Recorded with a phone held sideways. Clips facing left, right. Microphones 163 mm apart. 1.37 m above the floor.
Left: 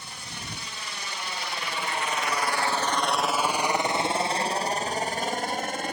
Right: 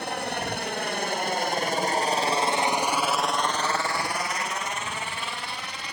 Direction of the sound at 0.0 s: 65° right (ahead or behind).